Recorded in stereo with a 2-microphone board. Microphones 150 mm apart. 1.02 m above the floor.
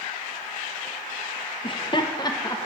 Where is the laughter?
35° left (ahead or behind), 0.6 m; by 2.7 s 20° left (ahead or behind), 0.8 m.